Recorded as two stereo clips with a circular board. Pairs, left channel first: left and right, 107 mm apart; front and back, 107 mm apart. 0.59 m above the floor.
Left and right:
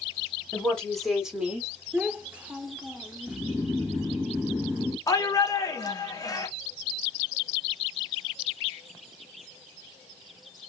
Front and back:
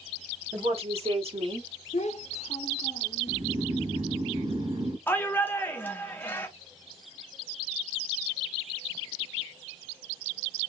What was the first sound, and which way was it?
A woman speaking, 165° left.